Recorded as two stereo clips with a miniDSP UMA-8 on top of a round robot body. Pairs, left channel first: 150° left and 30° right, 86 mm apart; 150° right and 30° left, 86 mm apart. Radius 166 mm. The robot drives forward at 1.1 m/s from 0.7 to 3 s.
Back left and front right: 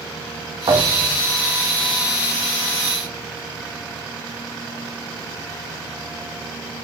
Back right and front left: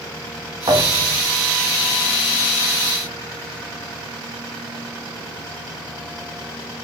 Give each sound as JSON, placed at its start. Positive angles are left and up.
{"t": 0.7, "sound": "a thud", "azimuth_deg": 0, "distance_m": 5.5}